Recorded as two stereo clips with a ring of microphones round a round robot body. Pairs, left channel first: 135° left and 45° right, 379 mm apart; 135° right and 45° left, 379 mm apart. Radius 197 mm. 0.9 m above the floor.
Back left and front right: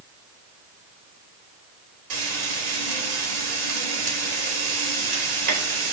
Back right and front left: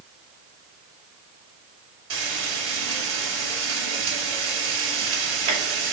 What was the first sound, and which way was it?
Frying, 15° right.